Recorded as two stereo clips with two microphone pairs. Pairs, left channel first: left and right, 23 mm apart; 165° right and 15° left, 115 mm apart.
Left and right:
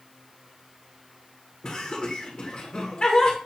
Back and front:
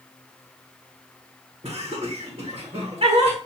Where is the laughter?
50° left, 1.4 m.